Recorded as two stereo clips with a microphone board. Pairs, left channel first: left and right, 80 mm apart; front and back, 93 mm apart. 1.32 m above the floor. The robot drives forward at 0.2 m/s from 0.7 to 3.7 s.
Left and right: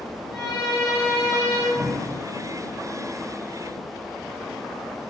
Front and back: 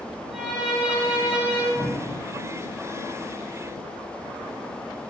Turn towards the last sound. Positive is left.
turn(degrees=80)